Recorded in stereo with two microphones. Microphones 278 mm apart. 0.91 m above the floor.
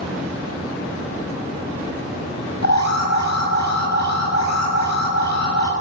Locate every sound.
2.6 s an alarm: 80° left, 5.5 m